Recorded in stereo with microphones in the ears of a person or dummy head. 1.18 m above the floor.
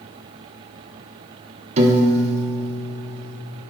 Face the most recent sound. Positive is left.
turn(degrees=-35)  # may be behind; listen again after turning